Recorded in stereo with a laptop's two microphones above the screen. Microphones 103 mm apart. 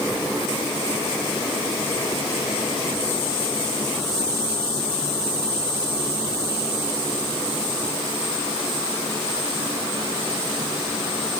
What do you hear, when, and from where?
Only background noise.